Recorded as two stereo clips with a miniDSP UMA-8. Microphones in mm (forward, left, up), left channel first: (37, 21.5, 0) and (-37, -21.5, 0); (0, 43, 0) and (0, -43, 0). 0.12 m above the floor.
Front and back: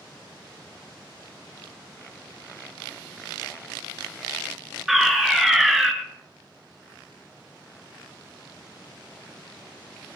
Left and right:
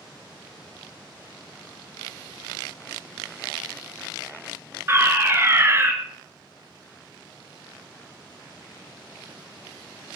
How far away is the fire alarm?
About 3 m.